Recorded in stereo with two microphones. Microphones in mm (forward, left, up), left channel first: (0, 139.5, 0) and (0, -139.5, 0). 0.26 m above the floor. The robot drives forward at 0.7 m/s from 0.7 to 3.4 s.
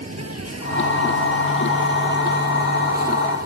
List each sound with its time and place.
0.0 s an insect: 65° right (ahead or behind); by 3.5 s 35° right (ahead or behind)